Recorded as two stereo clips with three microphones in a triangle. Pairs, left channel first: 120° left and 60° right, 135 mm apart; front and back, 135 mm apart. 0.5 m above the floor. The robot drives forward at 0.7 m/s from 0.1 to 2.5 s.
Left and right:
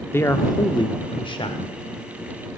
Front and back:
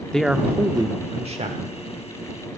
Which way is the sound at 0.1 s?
75° left.